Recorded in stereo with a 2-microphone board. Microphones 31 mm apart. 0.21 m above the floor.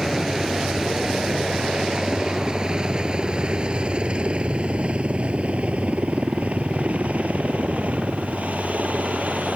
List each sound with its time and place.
0.0 s a helicopter: 10° right (ahead or behind); by 9.6 s 60° right (ahead or behind)